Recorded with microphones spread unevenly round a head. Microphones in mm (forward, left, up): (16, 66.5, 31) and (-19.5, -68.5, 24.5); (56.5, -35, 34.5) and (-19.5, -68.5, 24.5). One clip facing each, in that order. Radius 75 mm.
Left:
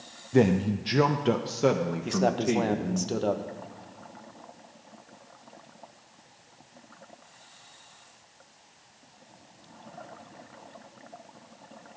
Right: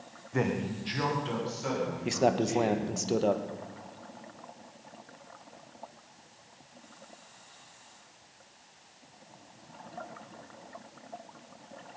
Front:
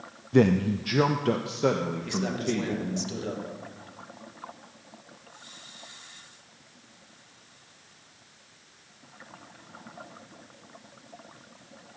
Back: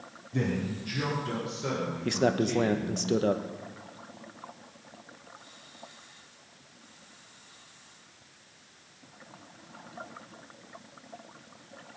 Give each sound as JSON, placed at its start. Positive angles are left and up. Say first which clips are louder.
{"t": 0.3, "sound": "a man speaking", "louder": "left 8 dB, front 10 dB", "azimuth_deg": 20, "distance_m": 0.7}
{"t": 2.0, "sound": "a man speaking", "louder": "left 1 dB, back 7 dB", "azimuth_deg": 175, "distance_m": 1.1}